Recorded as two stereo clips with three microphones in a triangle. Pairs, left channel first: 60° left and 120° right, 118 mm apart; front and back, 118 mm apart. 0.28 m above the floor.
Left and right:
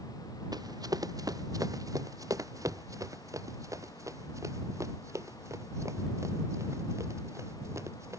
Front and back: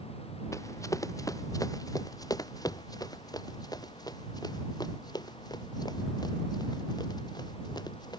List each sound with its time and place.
0.5 s running footsteps: 65° right; by 8.2 s 55° right